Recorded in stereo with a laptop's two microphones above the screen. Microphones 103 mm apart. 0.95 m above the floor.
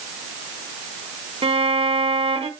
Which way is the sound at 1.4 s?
70° right (ahead or behind).